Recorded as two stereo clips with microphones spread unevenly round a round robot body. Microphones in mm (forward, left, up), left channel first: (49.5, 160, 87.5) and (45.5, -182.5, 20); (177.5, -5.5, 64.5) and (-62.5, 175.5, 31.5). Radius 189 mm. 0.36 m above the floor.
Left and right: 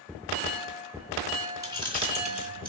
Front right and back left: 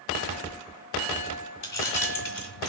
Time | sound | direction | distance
1.6 | keys jangling | 15° right | 3.5 m